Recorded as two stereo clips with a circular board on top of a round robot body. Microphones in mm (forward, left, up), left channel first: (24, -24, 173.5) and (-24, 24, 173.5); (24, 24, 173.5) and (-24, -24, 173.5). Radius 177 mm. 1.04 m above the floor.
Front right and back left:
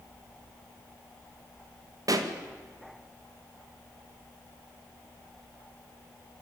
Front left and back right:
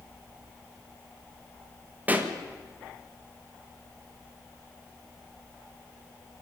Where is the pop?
160° left, 1.9 m.